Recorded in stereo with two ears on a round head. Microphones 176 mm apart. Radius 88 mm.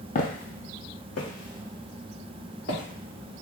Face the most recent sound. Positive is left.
turn(degrees=70)  # may be behind; listen again after turning